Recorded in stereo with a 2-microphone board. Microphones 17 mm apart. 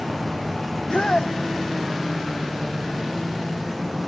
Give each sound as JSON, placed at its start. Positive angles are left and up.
{"t": 0.7, "sound": "a shout", "side_deg": 70}